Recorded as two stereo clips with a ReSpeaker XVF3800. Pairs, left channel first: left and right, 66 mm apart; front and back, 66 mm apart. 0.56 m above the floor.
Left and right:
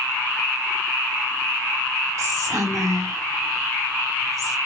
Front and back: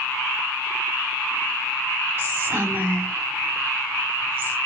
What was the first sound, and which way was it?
Whispering, 120° right.